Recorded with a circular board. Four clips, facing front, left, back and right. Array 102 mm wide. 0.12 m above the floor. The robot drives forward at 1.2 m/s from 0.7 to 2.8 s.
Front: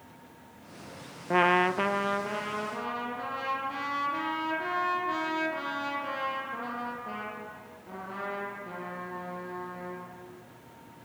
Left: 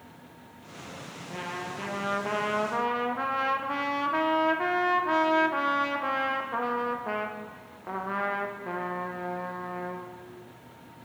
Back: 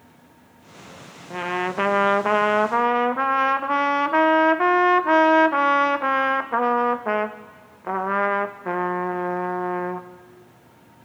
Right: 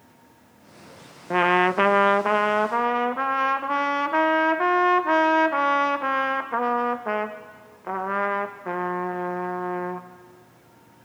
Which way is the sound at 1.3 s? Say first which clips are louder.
Right 17 dB, front 2 dB; 60° right.